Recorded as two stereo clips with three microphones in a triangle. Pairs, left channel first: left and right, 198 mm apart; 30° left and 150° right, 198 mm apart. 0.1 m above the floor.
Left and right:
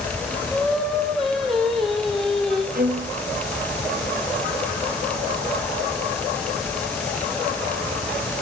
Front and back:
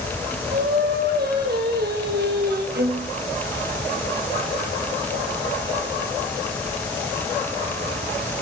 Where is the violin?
125° right, 3.5 m.